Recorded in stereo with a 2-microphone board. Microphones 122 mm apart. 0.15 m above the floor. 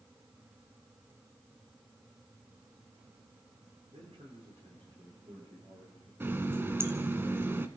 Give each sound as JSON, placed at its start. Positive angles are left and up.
{"t": 3.9, "sound": "a man speaking", "side_deg": -55, "distance_m": 8.5}
{"t": 6.2, "sound": "a running tap", "side_deg": -20, "distance_m": 0.8}